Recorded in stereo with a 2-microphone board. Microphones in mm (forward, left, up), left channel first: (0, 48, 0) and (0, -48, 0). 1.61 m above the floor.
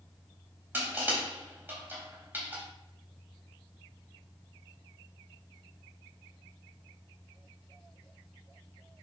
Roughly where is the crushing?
Right.